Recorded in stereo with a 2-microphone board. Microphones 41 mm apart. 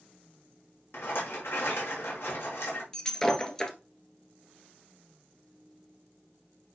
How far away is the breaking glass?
About 1.3 m.